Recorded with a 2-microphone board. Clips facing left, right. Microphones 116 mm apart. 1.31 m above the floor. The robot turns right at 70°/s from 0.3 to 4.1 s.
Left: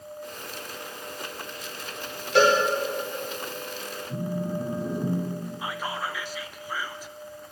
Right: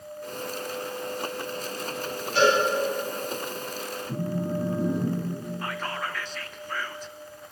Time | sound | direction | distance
2.4 | a cowbell | 90° left | 4.5 m
4.1 | a phone buzzing | 30° right (ahead or behind) | 3.5 m
5.6 | whispering | 10° left (ahead or behind) | 0.6 m